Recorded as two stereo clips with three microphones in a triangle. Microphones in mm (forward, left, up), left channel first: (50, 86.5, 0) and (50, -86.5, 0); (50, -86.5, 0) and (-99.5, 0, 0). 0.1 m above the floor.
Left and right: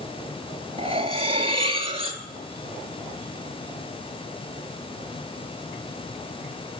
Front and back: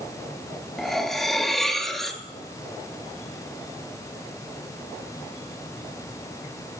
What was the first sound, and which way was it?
Cutlery clinking, 115° right.